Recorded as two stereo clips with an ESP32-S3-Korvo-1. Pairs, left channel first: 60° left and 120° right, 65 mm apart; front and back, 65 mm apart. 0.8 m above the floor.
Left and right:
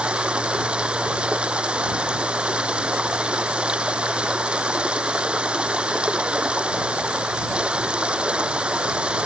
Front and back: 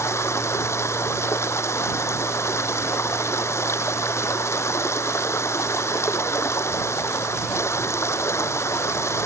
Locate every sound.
0.0 s running water: 45° right